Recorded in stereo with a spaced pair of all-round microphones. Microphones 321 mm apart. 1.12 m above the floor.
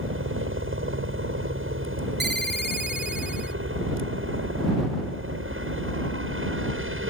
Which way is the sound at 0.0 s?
40° right (ahead or behind).